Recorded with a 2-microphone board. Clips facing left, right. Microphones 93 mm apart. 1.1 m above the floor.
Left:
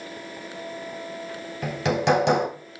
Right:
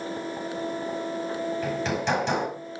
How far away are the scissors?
I don't hear scissors.